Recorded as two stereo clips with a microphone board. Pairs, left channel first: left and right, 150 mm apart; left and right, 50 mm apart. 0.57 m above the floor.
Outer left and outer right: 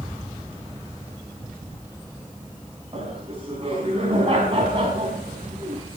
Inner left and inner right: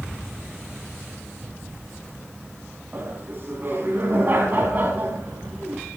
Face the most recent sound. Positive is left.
turn(degrees=-35)  # may be behind; listen again after turning